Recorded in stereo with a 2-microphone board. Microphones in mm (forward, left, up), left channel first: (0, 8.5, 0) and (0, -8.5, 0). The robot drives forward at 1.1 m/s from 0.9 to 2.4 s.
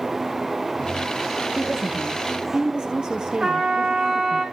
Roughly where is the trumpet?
Right.